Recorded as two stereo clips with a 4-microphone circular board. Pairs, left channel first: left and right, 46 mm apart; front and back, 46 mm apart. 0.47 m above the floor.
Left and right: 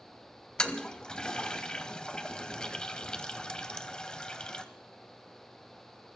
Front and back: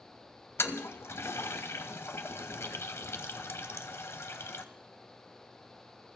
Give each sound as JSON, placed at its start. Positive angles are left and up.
{"t": 0.6, "sound": "a toilet flushing", "azimuth_deg": 20, "distance_m": 0.8}